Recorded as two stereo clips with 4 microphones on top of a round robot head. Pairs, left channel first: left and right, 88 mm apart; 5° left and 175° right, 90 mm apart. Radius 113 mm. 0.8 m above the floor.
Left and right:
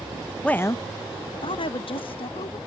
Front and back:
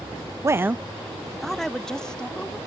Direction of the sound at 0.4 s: 165° left.